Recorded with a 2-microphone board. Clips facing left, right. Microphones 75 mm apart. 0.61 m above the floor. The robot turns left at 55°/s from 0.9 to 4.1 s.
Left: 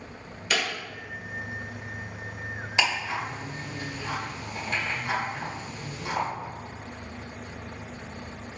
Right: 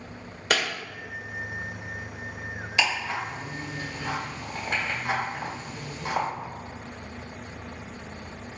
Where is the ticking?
25° left (ahead or behind), 1.7 m; by 6.3 s 45° right (ahead or behind), 1.7 m.